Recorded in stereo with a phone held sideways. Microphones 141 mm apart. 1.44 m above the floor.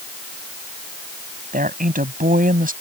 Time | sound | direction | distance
1.5 | a woman speaking | 80° right | ?